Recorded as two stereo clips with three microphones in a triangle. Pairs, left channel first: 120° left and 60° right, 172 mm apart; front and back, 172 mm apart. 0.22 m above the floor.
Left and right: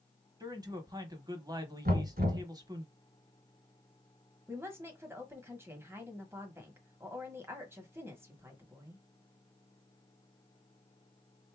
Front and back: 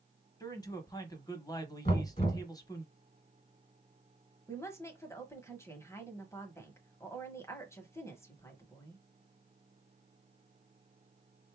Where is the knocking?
45° right, 1.5 m.